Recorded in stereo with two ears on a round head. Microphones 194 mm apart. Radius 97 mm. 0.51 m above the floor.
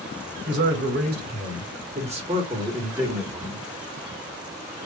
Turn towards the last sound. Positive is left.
turn(degrees=10)  # may be behind; listen again after turning